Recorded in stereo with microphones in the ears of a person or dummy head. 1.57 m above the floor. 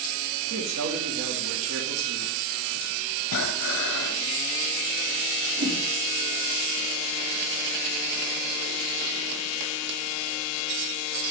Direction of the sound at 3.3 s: 70° left (ahead or behind).